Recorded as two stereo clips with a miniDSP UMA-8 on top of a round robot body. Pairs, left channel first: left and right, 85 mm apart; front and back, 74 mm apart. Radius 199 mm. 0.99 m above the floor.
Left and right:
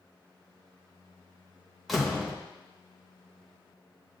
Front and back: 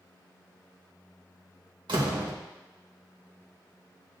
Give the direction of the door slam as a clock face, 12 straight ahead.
6 o'clock.